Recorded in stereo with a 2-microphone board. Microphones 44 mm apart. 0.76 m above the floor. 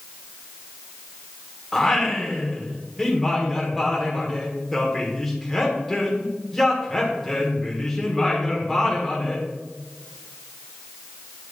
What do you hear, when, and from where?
1.7 s singing: 5° left (ahead or behind), 1.3 m